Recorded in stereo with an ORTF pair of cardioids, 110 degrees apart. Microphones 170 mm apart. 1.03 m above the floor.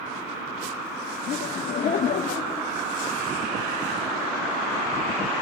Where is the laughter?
50° left, 2.5 m.